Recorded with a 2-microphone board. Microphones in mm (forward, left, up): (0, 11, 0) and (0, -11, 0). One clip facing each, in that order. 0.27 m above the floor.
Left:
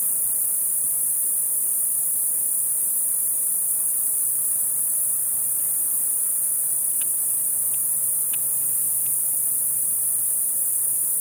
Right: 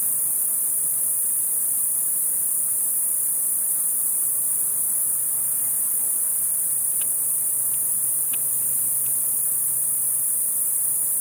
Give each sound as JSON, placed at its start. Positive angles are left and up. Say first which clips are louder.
{"t": 0.0, "sound": "an insect", "louder": "even", "side_deg": -55, "distance_m": 1.1}